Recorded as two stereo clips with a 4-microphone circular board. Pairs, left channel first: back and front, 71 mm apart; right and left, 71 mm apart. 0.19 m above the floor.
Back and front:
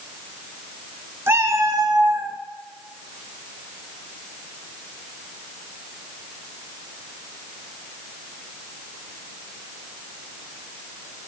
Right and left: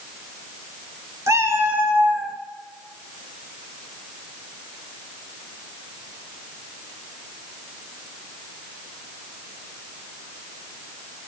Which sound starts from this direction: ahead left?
A cat meowing, at 1.3 s.